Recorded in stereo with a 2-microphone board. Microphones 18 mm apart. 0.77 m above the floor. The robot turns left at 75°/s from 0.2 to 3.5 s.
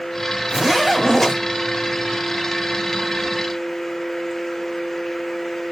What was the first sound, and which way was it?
A zipper, 145° right.